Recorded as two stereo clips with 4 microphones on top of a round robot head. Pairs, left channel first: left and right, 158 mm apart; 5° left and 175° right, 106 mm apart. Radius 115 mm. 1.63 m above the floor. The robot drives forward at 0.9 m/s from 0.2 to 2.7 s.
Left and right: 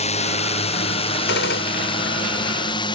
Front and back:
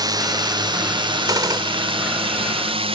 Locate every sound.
0.0 s a drone: 135° left; by 3.0 s 155° left
1.3 s a gunshot: 125° left; by 1.9 s 130° left